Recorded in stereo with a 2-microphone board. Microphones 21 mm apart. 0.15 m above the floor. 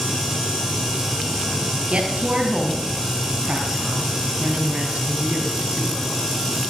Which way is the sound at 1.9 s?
60° right (ahead or behind).